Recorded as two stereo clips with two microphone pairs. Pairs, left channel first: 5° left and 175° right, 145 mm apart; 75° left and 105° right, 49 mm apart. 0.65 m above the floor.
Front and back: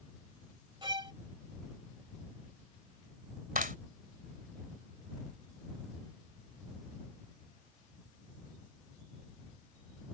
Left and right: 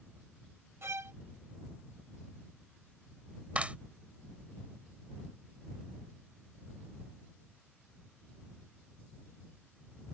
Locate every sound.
0.8 s a violin: 115° right
3.5 s a clap: 165° right